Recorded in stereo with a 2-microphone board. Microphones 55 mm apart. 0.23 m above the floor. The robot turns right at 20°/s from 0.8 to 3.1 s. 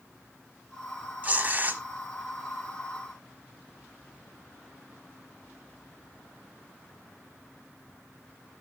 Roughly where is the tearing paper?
Right.